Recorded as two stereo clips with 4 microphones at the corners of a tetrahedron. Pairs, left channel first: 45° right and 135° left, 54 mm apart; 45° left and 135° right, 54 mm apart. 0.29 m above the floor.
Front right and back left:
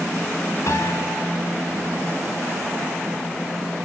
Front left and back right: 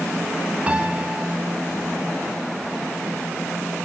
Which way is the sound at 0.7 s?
65° right.